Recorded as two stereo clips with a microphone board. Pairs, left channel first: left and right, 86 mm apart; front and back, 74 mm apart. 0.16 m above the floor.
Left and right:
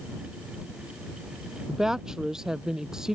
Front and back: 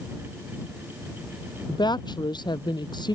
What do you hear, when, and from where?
1.7 s a woman speaking: 5° right